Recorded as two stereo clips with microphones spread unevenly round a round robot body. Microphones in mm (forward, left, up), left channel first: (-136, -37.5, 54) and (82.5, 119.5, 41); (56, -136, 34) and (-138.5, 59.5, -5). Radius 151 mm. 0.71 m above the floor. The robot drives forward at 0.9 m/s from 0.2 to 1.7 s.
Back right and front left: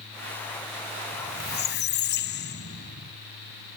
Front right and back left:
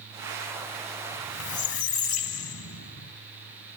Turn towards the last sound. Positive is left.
turn(degrees=-90)